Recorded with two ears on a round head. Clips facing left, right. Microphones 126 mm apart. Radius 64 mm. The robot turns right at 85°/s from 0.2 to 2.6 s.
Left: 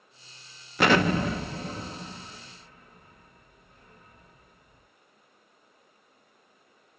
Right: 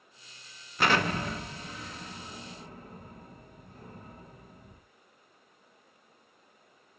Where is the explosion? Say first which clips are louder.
Left 5 dB; 50° left (ahead or behind), 0.6 m; by 4.8 s 30° right (ahead or behind), 0.6 m.